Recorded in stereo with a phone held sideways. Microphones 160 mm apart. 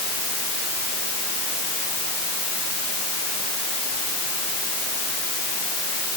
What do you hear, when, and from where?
Only background noise.